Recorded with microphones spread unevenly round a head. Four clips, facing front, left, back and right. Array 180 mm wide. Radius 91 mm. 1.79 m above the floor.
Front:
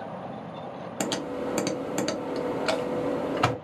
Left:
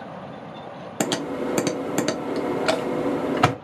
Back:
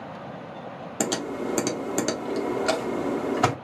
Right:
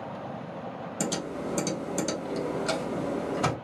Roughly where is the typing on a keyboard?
Behind left.